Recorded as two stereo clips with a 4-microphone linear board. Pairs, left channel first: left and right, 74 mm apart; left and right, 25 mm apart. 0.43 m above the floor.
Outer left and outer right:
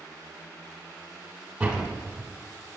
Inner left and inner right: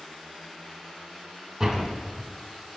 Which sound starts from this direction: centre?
A door slam, at 1.6 s.